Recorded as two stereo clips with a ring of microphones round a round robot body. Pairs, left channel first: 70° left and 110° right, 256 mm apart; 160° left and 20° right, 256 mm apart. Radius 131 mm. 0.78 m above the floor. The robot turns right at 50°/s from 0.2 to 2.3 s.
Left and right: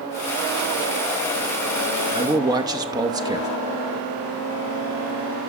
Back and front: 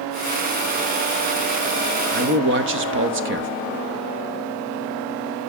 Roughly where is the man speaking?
Ahead right.